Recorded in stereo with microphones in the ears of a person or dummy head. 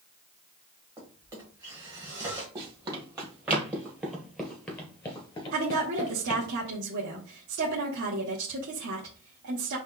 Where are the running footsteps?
25° right (ahead or behind), 2.0 m; by 6.5 s 40° left (ahead or behind), 1.4 m.